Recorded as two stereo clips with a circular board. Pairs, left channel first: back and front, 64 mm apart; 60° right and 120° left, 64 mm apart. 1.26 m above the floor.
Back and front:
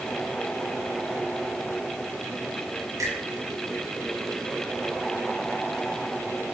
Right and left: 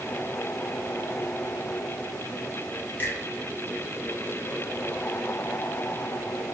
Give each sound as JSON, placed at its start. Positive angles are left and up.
{"t": 3.0, "sound": "a finger snap", "azimuth_deg": -5, "distance_m": 1.0}